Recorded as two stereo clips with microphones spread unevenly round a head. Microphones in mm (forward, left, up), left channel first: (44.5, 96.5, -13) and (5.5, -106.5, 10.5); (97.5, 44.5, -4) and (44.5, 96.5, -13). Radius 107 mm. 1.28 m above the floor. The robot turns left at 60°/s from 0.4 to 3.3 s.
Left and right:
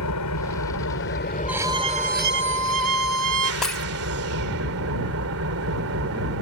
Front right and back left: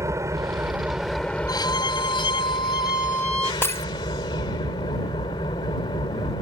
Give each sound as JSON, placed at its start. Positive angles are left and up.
{"t": 0.0, "sound": "an engine running", "azimuth_deg": 90}
{"t": 1.5, "sound": "a violin", "azimuth_deg": -15}
{"t": 3.6, "sound": "breaking glass", "azimuth_deg": -15}